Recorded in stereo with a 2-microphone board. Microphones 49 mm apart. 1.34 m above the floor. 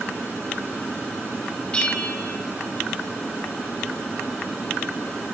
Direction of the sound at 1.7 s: 20° left (ahead or behind).